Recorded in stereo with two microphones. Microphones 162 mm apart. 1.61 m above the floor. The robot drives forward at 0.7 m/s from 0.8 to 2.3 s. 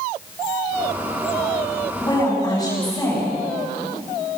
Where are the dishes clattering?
I don't hear dishes clattering.